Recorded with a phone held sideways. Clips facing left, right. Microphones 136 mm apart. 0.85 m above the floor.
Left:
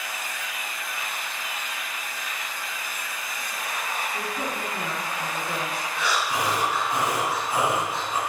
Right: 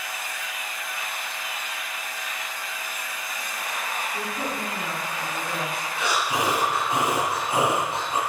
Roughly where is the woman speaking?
Centre.